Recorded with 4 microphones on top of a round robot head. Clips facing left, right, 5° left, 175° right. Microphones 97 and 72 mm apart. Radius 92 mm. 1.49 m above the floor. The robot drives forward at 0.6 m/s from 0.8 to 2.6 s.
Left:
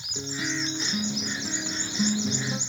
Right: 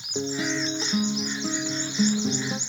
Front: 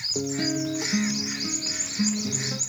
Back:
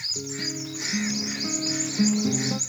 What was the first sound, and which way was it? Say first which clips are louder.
A guitar: right 5 dB, front 8 dB; 45° right.